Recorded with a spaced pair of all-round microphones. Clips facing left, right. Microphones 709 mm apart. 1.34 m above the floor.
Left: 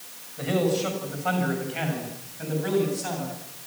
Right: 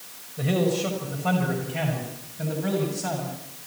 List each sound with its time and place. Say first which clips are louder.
0.4 s a man speaking: even; 60° right (ahead or behind), 6 m; by 3.4 s 70° right (ahead or behind), 8 m